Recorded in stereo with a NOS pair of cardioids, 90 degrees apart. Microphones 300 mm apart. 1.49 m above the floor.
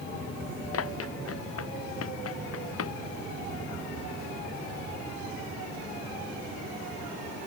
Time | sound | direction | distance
0.7 | running footsteps | 50° left | ?